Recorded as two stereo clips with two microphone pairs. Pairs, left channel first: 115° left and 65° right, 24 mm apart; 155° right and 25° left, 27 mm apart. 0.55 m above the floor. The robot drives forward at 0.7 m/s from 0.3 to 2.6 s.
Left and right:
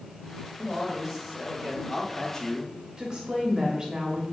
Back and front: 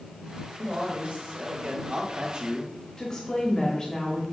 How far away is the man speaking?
About 1.7 m.